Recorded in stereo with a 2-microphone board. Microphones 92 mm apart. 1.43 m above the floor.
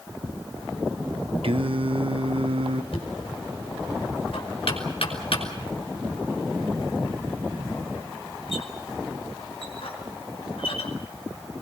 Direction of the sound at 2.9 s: 70° left (ahead or behind).